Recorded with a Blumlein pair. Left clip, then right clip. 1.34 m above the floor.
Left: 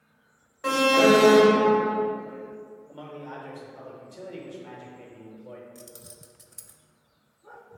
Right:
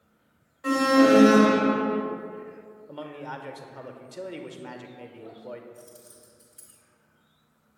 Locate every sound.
0.6 s an alarm: 70° left, 0.6 m
2.9 s a man speaking: 20° right, 0.7 m
5.8 s keys jangling: 30° left, 0.6 m